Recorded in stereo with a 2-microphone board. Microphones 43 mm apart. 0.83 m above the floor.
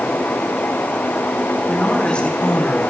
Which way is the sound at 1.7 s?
30° left (ahead or behind).